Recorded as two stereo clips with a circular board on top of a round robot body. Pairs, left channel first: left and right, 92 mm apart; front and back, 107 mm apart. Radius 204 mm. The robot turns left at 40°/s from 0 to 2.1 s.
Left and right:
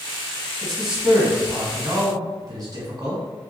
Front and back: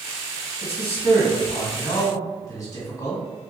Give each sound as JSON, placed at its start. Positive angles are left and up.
{"t": 0.6, "sound": "a man speaking", "azimuth_deg": 10, "distance_m": 1.9}